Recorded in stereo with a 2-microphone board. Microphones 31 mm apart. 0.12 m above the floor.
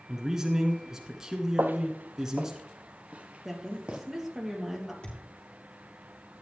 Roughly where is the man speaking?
Centre.